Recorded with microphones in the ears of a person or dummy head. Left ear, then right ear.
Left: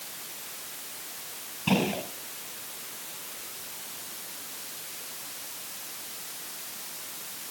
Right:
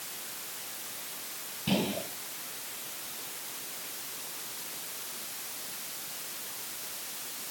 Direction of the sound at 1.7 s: 35° left (ahead or behind).